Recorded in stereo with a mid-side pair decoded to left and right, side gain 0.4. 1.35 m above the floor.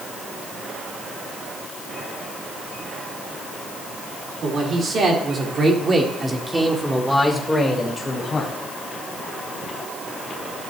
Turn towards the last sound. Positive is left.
turn(degrees=40)